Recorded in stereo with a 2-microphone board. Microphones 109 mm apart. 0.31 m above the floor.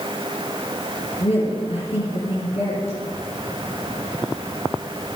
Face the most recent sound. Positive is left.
turn(degrees=60)  # may be behind; listen again after turning